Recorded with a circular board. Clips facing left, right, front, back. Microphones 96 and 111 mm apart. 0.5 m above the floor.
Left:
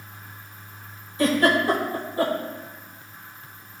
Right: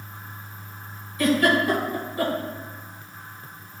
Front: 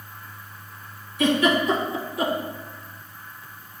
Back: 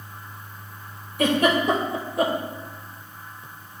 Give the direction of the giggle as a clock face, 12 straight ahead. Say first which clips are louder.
Even, even; 7 o'clock.